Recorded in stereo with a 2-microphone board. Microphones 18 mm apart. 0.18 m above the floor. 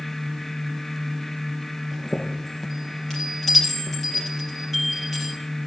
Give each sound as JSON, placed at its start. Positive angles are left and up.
{"t": 1.9, "sound": "a chime", "side_deg": 20, "distance_m": 4.0}